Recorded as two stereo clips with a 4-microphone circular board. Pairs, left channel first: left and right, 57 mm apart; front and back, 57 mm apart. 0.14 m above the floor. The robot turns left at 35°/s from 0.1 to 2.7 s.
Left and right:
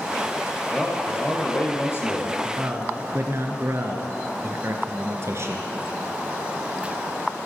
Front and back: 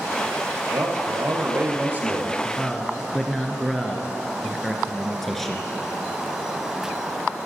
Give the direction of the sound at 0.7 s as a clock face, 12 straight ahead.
6 o'clock.